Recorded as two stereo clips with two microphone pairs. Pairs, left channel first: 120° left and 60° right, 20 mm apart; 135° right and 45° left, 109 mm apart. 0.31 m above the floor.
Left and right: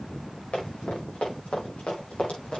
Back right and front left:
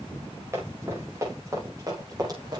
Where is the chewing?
No chewing in this recording.